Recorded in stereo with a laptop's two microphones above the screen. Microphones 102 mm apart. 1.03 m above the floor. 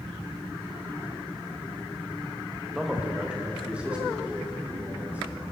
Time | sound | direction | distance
2.8 | a man speaking | 5° right (ahead or behind) | 1.2 m